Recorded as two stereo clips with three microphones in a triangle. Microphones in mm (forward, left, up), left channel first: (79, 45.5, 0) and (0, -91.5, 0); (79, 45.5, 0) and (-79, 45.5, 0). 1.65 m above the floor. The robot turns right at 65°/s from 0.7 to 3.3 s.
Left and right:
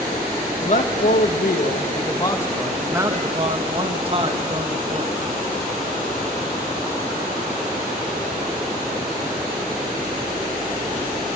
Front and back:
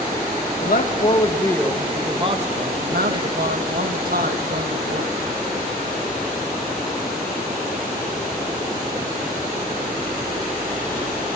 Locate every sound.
0.6 s a man speaking: 20° left, 1.7 m; by 5.1 s 170° right, 1.7 m